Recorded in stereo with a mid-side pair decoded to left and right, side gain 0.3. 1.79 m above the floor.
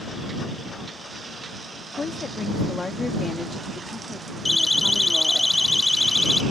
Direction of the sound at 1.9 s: 50° left.